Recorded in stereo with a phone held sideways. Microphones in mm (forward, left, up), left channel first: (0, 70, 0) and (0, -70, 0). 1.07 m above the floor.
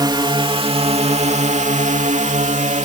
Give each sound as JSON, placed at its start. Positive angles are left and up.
{"t": 0.0, "sound": "a drone", "side_deg": -30}